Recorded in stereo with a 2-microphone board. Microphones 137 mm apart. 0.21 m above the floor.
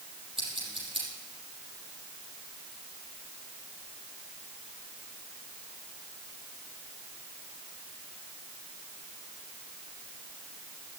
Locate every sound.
0.4 s scissors: 40° right (ahead or behind), 7 m